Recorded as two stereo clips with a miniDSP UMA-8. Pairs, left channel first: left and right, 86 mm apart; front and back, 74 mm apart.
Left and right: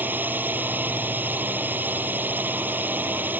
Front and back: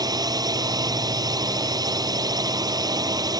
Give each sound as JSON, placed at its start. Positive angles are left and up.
{"t": 0.0, "sound": "a drone", "azimuth_deg": -155}